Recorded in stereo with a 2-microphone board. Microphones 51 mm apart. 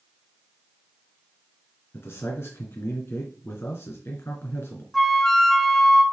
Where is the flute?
5° left (ahead or behind), 0.9 m.